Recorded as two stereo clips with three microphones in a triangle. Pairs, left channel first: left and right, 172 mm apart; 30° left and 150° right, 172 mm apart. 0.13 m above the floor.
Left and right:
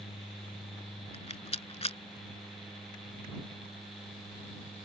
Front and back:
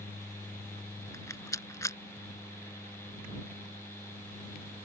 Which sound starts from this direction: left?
A rattle, at 1.1 s.